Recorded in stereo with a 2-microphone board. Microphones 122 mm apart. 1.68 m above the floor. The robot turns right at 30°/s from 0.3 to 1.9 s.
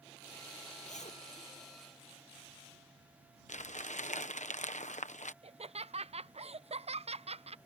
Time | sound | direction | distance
0.8 | a zipper | 75° left (ahead or behind) | ?
3.5 | crumpling | 75° left (ahead or behind) | ?
5.4 | laughter | 55° right (ahead or behind) | ?